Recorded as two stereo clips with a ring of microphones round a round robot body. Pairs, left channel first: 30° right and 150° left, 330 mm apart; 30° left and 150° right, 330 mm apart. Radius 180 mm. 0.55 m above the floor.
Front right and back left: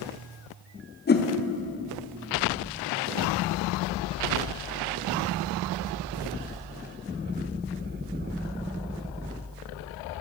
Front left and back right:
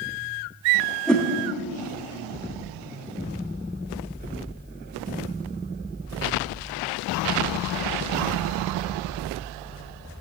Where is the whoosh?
55° right, 1.0 m.